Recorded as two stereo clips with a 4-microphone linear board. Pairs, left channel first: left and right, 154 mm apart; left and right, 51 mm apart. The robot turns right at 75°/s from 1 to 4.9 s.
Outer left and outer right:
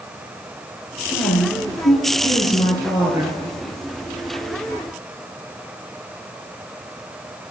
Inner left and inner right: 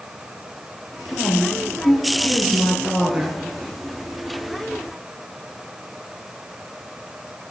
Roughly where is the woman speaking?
Ahead left.